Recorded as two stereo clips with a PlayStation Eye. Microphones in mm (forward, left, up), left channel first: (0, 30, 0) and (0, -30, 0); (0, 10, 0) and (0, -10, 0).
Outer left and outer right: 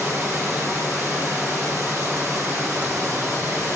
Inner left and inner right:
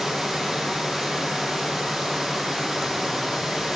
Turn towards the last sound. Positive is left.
turn(degrees=-45)  # may be behind; listen again after turning